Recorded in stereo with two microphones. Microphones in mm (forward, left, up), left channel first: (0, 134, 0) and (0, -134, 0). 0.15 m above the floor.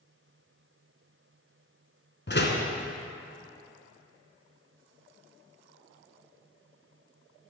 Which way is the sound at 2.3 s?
45° left (ahead or behind).